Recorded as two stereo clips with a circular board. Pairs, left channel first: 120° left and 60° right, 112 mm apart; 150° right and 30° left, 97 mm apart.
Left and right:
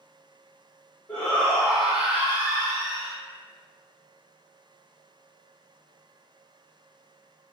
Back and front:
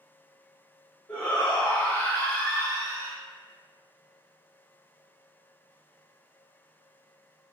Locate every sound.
1.1 s a shout: 160° left, 1.0 m; by 3.2 s 95° right, 1.6 m